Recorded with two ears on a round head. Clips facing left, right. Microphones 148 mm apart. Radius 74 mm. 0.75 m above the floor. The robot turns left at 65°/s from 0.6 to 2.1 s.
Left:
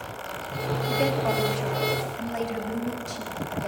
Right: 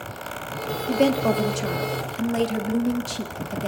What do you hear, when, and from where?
0.9 s a woman speaking: 50° right, 1.5 m; by 3.7 s 130° right, 1.5 m